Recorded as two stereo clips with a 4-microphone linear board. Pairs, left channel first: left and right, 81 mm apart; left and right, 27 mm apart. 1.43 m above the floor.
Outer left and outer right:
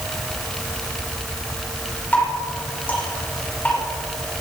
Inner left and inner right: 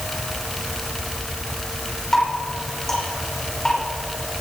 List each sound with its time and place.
2.1 s dripping: 20° left (ahead or behind), 5.5 m